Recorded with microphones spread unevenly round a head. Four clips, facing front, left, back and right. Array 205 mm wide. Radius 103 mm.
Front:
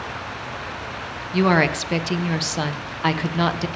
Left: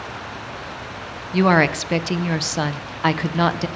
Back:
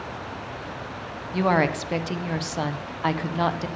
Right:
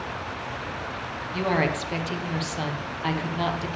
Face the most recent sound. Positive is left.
turn(degrees=55)